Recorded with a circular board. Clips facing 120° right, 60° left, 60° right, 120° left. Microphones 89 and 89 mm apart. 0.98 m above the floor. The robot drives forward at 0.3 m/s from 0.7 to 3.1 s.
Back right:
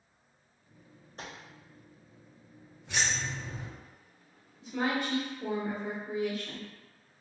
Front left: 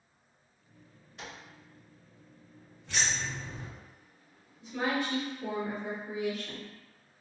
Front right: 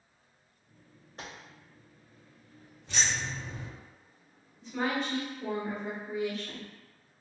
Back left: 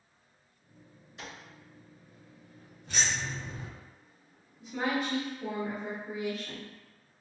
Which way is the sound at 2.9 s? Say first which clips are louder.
Back right 1 dB, even; 165° left.